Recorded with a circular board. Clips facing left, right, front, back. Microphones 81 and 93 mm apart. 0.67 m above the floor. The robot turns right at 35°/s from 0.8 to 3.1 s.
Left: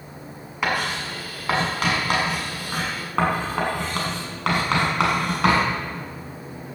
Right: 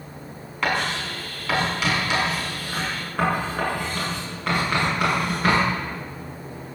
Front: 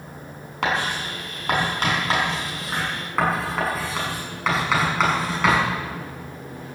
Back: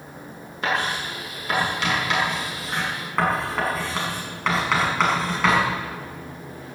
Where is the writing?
10° left, 6 m; by 5.7 s 90° left, 6 m.